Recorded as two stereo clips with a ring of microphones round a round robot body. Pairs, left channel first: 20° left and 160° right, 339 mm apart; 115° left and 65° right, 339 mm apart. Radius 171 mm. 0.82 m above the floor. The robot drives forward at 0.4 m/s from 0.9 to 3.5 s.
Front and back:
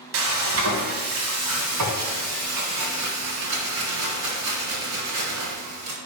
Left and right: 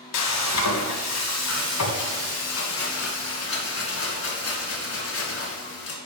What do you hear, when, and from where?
0.1 s frying: 150° left, 1.3 m; by 6.0 s 165° left, 2.5 m